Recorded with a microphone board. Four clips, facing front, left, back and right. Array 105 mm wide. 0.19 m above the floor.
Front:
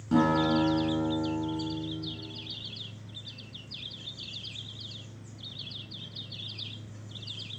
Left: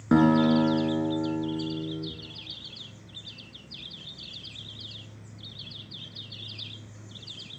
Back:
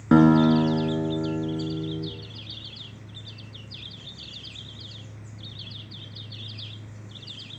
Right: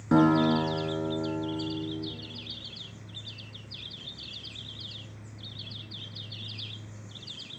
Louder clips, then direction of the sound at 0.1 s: Left 2 dB, back 8 dB; 160° left.